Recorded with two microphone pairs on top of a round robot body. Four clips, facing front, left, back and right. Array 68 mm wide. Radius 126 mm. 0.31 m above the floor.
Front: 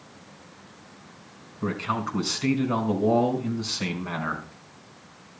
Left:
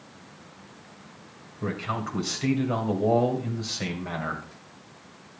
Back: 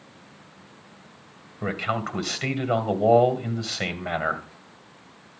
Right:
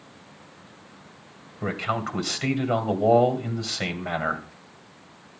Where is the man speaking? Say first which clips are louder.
Right 3 dB, even; 160° right, 2.5 m.